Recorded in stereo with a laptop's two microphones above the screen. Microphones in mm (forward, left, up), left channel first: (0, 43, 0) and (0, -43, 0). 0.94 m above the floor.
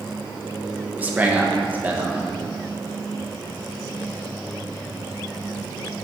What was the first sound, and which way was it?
A man speaking, 20° right (ahead or behind).